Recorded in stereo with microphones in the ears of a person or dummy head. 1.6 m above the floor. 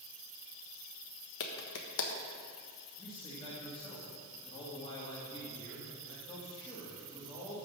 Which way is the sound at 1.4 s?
65° left (ahead or behind).